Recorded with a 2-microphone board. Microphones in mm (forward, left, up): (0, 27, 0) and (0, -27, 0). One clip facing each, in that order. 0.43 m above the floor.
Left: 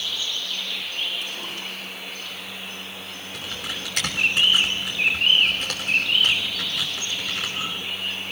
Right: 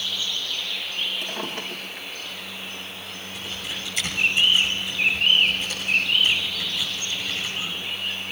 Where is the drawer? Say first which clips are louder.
Right 2 dB; 45° right (ahead or behind), 3.5 m.